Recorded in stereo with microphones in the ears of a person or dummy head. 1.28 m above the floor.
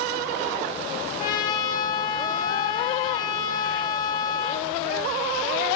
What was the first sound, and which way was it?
A trumpet, 25° left (ahead or behind).